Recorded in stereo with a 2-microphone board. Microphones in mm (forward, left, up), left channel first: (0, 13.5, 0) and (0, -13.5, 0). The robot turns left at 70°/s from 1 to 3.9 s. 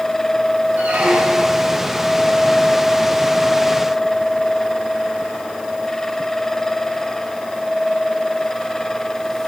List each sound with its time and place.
0.8 s a squeak: 85° right, 3 m; by 1.7 s 135° right, 3 m